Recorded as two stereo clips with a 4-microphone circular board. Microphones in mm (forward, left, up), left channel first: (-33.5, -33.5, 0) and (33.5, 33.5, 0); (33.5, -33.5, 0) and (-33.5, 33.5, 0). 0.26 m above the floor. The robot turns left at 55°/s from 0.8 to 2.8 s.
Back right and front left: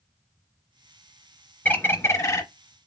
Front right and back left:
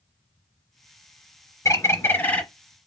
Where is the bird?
70° right, 0.7 m; by 2.4 s 115° right, 0.7 m.